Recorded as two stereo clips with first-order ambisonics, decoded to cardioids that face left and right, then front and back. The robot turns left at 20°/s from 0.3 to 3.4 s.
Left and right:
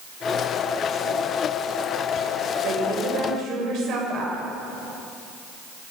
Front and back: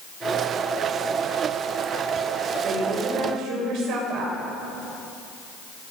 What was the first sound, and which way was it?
A woman speaking, 120° right.